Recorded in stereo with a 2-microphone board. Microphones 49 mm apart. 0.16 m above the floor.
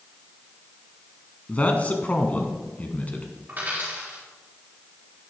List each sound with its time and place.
1.5 s a man speaking: 30° left (ahead or behind), 1.1 m
3.5 s a dropped coin: 35° right (ahead or behind), 5 m